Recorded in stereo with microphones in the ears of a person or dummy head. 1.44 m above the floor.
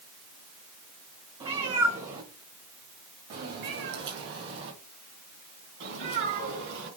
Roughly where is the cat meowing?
Centre.